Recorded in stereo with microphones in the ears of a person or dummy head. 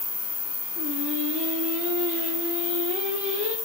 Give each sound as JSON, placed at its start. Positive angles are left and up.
{"t": 0.8, "sound": "singing", "side_deg": -75, "distance_m": 3.5}